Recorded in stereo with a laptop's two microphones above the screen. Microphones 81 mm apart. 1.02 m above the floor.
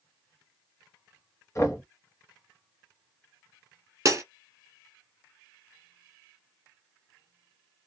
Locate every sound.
1.6 s knocking: 35° left (ahead or behind), 0.7 m
4.0 s breaking glass: 40° right (ahead or behind), 1.3 m